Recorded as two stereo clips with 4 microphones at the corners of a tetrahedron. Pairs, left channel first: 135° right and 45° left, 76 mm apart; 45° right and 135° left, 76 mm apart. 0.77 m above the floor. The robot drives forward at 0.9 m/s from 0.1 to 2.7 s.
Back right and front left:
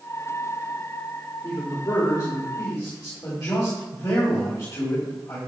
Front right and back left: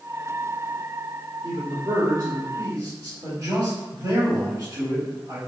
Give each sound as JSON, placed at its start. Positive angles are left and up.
{"t": 1.4, "sound": "a man speaking", "azimuth_deg": 180, "distance_m": 2.0}